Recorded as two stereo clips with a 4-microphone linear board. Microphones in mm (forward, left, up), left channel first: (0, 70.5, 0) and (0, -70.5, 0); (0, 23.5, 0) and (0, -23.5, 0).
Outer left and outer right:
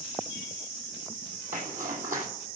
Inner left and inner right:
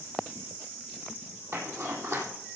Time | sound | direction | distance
1.5 | a zipper | 70° right (ahead or behind) | 3.5 m